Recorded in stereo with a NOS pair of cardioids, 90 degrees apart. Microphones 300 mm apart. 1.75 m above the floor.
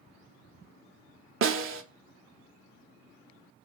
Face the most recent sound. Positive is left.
turn(degrees=-45)